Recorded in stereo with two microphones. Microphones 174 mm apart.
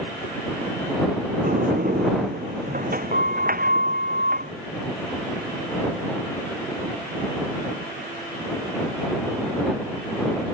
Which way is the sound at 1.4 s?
55° right (ahead or behind).